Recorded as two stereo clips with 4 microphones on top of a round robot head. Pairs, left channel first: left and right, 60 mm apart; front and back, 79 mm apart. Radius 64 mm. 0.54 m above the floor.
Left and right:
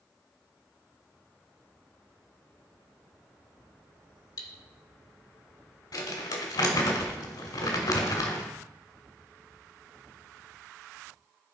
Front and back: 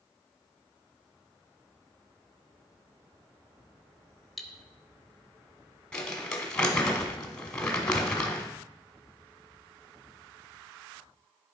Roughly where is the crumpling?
Left.